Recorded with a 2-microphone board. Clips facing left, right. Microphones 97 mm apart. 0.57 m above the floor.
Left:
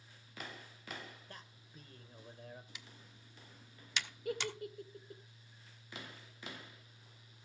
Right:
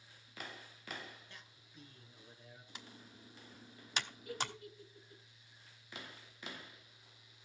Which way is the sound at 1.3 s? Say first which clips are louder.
Left 4 dB; 45° left (ahead or behind).